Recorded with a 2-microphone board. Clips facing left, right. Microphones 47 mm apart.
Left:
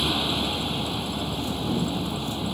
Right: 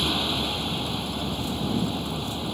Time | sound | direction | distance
0.0 | a vehicle | centre (ahead or behind) | ?